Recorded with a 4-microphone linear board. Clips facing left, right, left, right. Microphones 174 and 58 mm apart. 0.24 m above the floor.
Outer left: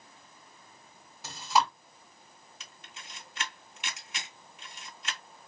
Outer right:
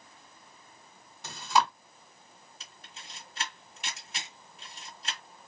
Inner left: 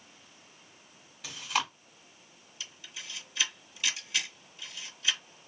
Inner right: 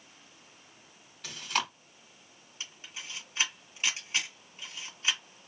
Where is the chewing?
5° left (ahead or behind), 1.5 m.